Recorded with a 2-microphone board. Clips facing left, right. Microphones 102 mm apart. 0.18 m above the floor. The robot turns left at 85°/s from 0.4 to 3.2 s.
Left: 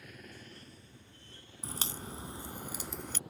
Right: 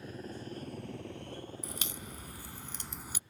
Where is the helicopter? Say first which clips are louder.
Right 8 dB; 30° right (ahead or behind); by 3.3 s 75° left (ahead or behind).